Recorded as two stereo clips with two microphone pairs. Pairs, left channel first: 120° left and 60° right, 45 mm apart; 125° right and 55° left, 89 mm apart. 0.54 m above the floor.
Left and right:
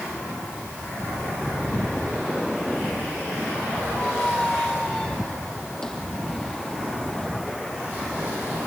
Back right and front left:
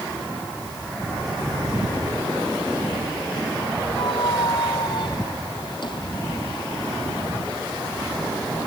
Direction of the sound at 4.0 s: 160° right.